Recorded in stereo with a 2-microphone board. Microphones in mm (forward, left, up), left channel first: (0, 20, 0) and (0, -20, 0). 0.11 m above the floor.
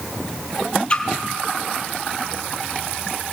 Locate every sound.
0.9 s a splash: 30° left (ahead or behind), 1.5 m